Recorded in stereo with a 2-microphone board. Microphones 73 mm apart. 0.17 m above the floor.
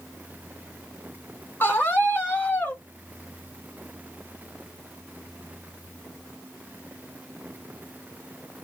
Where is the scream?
25° left (ahead or behind), 1.2 m.